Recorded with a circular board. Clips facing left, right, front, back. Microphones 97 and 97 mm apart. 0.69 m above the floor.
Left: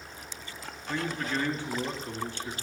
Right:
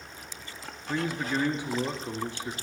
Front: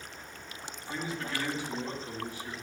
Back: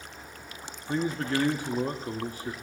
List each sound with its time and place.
0.9 s a man speaking: 160° right, 1.1 m